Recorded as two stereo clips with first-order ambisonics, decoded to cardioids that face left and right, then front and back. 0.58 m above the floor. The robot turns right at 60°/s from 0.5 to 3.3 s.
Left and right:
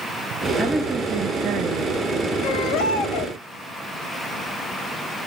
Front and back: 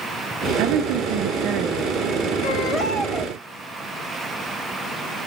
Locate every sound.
0.6 s a woman speaking: straight behind, 4.5 m; by 2.0 s 95° right, 4.5 m
2.4 s a baby crying: 50° left, 2.5 m; by 3.4 s 105° left, 2.5 m